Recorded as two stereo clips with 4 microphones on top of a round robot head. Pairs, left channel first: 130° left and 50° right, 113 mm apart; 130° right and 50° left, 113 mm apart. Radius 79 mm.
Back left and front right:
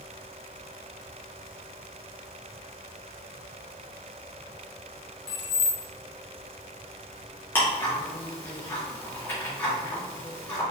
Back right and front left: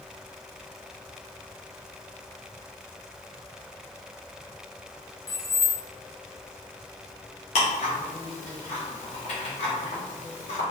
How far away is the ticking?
About 1.6 m.